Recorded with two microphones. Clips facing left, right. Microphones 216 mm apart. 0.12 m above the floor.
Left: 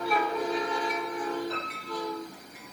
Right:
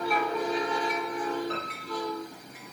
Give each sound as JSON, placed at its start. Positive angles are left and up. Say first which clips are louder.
{"t": 1.5, "sound": "a piano", "louder": "right 1 dB", "side_deg": -65, "distance_m": 4.0}